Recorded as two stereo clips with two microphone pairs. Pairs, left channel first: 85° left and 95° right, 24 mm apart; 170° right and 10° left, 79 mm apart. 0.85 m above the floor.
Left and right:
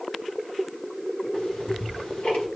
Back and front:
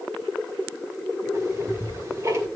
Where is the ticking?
55° left, 2 m.